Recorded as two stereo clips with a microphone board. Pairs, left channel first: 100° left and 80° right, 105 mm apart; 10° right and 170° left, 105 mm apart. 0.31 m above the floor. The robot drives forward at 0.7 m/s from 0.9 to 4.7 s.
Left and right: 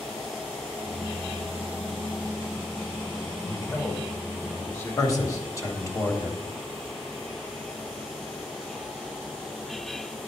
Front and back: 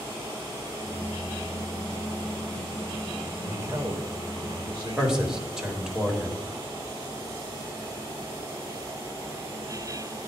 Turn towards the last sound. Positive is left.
turn(degrees=90)